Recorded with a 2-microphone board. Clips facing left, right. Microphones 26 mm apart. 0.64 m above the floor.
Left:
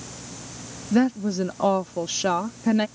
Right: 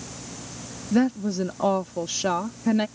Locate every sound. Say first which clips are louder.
0.9 s a woman speaking: left 1 dB; 10° left (ahead or behind)